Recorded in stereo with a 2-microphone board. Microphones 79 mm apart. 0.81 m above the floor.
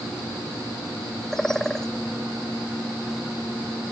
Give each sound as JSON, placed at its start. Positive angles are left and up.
{"t": 1.3, "sound": "a bird", "side_deg": 5}